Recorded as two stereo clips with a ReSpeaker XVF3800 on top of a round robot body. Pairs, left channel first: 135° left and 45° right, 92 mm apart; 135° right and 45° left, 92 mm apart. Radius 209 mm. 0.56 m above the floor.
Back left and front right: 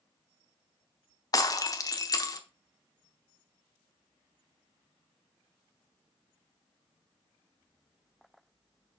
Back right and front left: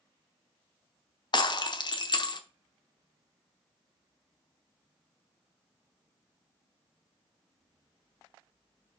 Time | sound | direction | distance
1.3 | breaking glass | 175° right | 1.0 m